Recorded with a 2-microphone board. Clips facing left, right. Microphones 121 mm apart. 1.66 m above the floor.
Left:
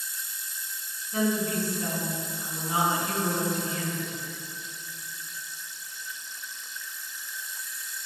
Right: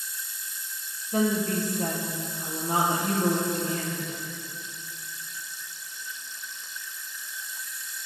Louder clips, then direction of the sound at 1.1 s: Right 2 dB; 45° right (ahead or behind).